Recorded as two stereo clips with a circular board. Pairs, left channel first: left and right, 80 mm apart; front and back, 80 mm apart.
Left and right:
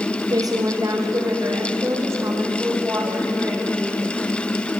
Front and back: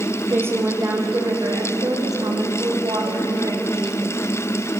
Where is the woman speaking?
120° right, 4.5 m; by 4.1 s 155° right, 9.5 m.